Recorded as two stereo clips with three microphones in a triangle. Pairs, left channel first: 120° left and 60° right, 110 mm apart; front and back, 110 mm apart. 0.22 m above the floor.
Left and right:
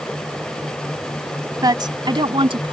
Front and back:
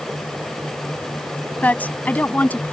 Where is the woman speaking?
65° right; by 2.7 s 70° right.